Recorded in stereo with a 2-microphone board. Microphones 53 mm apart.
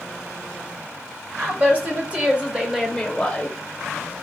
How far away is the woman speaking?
About 1.5 m.